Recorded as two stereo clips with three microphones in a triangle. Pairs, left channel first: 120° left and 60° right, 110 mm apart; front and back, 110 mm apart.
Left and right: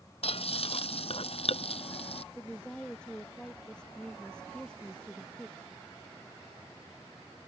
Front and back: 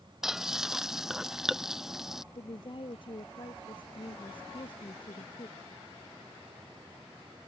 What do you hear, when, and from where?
0.2 s frying: 95° left
2.3 s a woman speaking: 40° left